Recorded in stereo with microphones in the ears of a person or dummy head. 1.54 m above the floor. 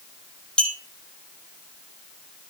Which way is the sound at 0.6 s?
5° left (ahead or behind).